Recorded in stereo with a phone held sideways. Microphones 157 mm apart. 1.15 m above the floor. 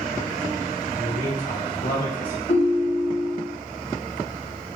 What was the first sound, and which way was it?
A man speaking, 75° left (ahead or behind).